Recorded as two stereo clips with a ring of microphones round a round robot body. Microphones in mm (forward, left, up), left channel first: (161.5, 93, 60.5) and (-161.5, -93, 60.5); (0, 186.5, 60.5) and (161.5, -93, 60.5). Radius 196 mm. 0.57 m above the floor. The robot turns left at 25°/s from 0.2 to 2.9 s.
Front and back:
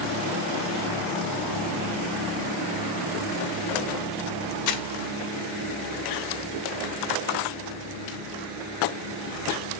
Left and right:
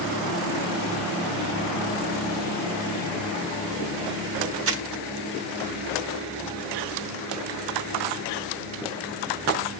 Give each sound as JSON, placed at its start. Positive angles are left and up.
{"t": 4.7, "sound": "crumpling", "azimuth_deg": -15, "distance_m": 2.0}